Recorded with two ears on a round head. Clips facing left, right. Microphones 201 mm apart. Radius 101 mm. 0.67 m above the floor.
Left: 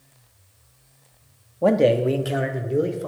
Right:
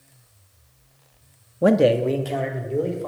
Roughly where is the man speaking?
Right.